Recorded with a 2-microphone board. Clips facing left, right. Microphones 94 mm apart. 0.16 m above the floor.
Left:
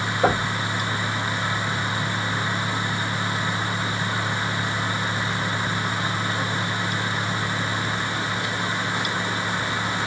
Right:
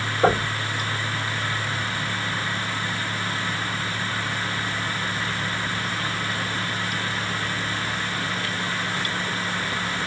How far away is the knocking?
About 3 m.